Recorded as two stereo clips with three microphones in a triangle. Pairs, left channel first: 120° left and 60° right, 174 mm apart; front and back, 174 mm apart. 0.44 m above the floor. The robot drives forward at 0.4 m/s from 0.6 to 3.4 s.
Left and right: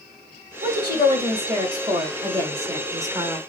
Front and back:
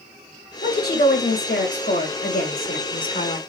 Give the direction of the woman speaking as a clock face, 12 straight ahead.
12 o'clock.